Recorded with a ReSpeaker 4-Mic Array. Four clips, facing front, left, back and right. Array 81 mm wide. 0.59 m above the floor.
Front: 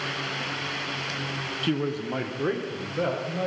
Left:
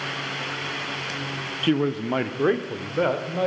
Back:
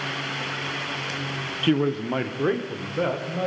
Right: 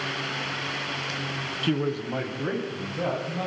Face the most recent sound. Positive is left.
turn(degrees=100)